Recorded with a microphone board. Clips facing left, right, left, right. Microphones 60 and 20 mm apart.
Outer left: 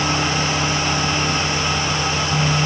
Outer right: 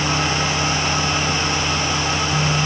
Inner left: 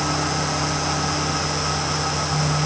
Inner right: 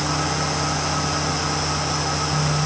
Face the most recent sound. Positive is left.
No sound to turn to.